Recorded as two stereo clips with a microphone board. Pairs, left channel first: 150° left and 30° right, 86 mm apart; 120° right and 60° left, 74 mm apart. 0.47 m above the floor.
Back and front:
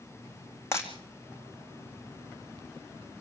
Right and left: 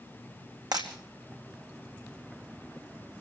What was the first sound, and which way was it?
Breaking glass, 90° left.